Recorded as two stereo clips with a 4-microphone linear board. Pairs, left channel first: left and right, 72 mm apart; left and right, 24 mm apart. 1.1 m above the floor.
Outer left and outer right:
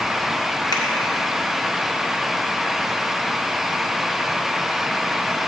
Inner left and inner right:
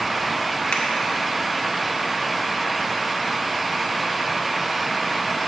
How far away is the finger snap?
About 1.2 m.